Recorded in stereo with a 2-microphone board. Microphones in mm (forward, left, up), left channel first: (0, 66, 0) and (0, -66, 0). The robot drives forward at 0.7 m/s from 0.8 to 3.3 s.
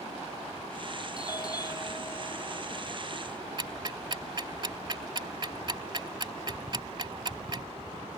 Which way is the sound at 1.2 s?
30° left (ahead or behind).